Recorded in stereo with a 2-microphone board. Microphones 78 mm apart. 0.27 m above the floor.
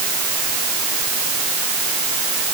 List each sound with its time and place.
Only background noise.